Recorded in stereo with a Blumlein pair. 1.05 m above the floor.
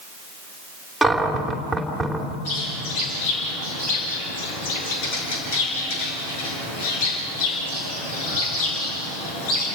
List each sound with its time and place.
1.0 s a cupboard door: straight ahead, 3 m
2.5 s a bird: 50° left, 7 m